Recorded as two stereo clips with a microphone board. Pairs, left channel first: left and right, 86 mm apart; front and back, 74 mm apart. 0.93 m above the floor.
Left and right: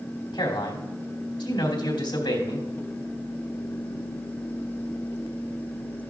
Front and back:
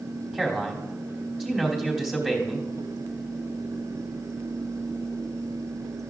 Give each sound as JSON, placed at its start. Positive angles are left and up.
{"t": 0.3, "sound": "a man speaking", "azimuth_deg": 95, "distance_m": 2.5}